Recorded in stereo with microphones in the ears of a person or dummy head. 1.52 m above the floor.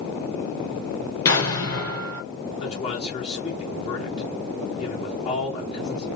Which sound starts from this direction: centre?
An explosion, at 1.2 s.